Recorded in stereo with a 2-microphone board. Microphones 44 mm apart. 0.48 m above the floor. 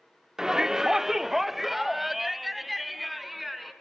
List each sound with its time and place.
0.4 s a shout: 10° right (ahead or behind), 0.7 m; by 3.7 s centre (ahead or behind), 4.5 m